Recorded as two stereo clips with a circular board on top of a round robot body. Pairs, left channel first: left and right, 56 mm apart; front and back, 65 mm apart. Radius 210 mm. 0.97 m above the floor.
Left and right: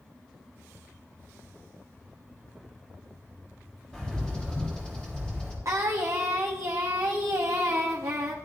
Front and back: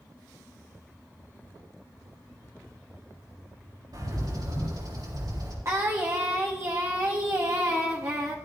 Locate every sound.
3.9 s a bird: 165° left, 3.5 m
5.7 s singing: 130° right, 0.5 m